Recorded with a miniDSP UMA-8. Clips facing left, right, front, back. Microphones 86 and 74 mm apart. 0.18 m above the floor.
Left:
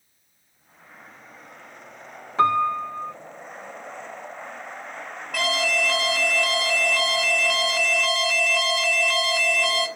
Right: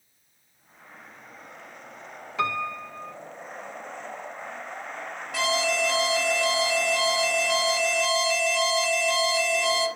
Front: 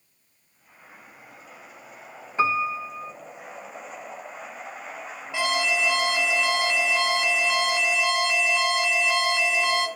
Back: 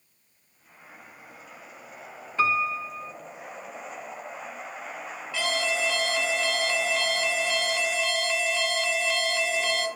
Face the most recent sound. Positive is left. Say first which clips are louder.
# left 1 dB, front 3 dB
turn(degrees=70)